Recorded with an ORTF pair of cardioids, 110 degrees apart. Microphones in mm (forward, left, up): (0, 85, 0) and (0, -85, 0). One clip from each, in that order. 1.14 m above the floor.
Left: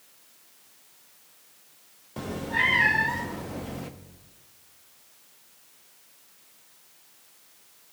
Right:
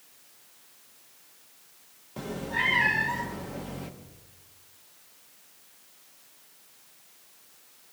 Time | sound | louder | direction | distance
2.2 | a cat meowing | left 3 dB | 15° left | 0.9 m